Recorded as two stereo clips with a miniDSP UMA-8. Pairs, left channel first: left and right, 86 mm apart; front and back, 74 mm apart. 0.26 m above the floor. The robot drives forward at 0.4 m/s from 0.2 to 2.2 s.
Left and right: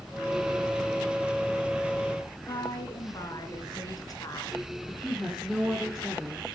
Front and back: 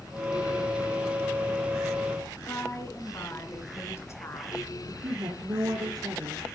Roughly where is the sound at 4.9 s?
Behind.